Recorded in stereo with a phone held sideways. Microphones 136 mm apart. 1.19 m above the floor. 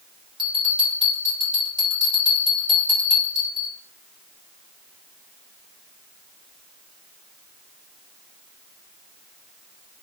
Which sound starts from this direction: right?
A bell, at 0.4 s.